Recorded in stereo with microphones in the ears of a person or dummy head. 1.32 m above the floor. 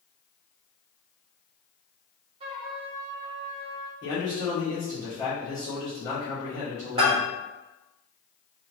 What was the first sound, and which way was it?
A trumpet, 30° right (ahead or behind).